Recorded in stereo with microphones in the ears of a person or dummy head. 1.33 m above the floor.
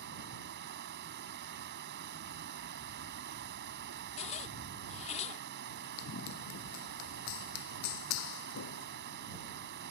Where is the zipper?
35° left (ahead or behind).